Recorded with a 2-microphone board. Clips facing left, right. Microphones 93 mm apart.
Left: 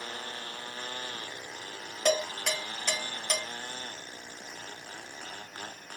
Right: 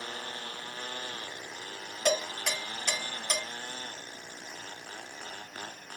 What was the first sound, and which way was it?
Dishes clattering, 5° right (ahead or behind).